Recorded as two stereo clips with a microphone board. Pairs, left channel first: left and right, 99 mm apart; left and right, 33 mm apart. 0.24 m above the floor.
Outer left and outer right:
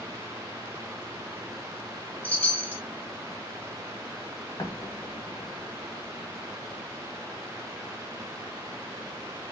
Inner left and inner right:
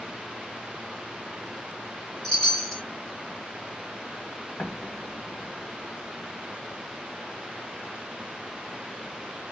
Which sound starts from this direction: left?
An explosion, at 4.6 s.